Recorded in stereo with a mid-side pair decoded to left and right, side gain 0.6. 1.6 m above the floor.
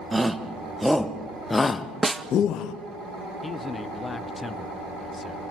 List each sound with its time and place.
0.1 s a shout: 10° right, 1.9 m; by 2.7 s 65° left, 1.0 m
2.0 s a snare drum: 15° right, 1.0 m
3.4 s a man speaking: 20° left, 1.1 m